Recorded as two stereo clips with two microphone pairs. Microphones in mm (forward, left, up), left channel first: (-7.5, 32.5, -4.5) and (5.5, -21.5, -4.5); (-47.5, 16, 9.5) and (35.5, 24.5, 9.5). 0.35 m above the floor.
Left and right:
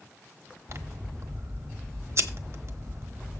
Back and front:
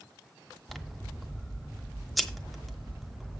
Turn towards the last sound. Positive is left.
turn(degrees=-85)